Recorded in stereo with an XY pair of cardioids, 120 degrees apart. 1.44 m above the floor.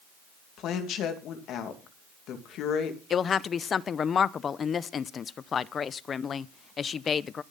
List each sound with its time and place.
0.6 s a woman speaking: 70° left, 2.5 m
3.1 s a woman speaking: 40° left, 0.6 m